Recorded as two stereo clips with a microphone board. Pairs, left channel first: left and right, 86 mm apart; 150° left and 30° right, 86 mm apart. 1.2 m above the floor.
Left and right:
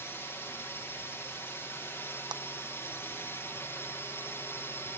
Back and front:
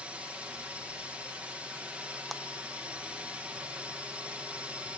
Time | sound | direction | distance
0.0 | a drone | 40° left | ?
2.3 | a clap | 120° right | ?